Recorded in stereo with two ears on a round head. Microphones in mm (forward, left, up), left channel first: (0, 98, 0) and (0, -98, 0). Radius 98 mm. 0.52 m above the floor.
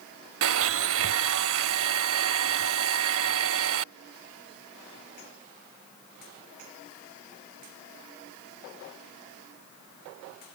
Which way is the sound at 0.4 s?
65° right (ahead or behind).